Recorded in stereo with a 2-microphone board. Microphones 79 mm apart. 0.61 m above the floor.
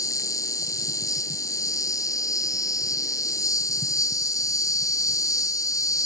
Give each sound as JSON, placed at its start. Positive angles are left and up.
{"t": 0.0, "sound": "an insect", "side_deg": 45}